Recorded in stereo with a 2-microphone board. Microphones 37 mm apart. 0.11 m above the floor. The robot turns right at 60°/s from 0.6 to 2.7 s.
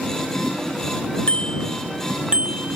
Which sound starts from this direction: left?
A bicycle bell, at 1.3 s.